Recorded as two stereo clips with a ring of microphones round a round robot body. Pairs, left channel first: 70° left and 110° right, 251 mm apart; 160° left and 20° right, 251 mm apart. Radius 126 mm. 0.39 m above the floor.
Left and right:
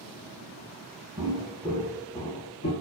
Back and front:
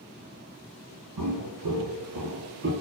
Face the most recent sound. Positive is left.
turn(degrees=20)